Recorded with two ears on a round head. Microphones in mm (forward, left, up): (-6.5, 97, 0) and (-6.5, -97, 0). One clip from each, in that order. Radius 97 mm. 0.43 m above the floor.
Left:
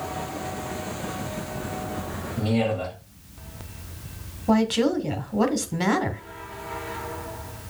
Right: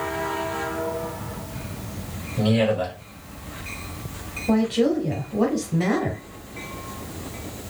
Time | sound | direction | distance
2.4 | a man speaking | 60° right (ahead or behind) | 3 m
4.5 | a woman speaking | 40° left (ahead or behind) | 1.0 m